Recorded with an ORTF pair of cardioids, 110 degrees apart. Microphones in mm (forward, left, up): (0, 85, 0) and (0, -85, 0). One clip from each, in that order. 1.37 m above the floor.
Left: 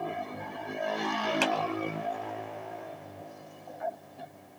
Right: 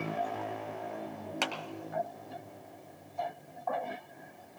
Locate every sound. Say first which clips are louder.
1.4 s a clap: left 4 dB; 5° left, 1.2 m